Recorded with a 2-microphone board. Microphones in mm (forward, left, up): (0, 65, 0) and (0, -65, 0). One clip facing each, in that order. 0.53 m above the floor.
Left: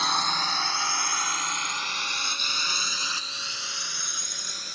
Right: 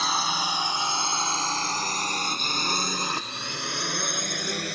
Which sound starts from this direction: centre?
A drone, at 0.0 s.